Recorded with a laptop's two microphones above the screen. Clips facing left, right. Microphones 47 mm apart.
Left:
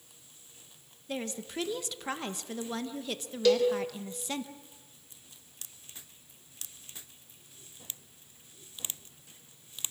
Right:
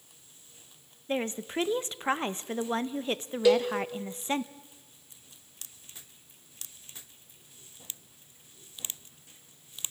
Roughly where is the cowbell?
Centre.